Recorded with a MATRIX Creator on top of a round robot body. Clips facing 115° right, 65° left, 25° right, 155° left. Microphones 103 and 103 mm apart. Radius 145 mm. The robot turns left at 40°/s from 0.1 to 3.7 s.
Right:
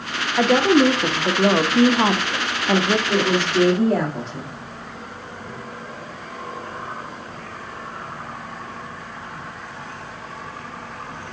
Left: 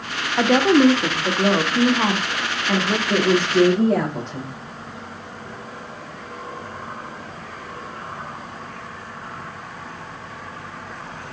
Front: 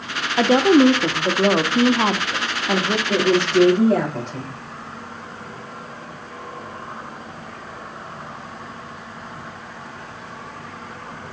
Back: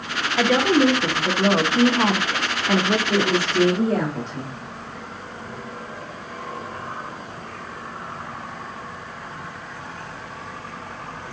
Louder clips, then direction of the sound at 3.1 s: Left 2 dB, front 3 dB; straight ahead.